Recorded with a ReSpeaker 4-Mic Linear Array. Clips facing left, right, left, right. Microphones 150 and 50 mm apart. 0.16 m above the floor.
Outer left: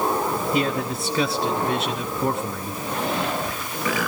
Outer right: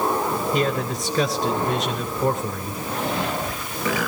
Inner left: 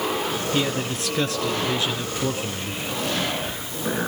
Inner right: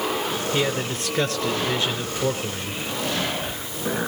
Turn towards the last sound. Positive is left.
turn(degrees=5)  # may be behind; listen again after turning